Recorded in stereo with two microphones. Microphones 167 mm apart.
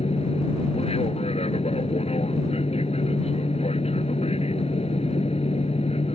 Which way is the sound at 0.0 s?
35° left (ahead or behind).